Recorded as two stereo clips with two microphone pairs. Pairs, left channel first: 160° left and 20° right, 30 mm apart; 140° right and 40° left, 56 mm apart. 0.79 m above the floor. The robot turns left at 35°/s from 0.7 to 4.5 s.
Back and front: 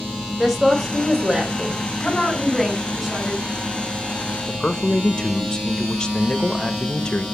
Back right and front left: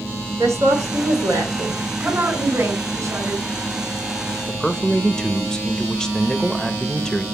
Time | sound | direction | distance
0.4 | a woman speaking | 60° left | 3 m
2.0 | a woman speaking | 90° left | 3.5 m
4.5 | a man speaking | 155° left | 0.9 m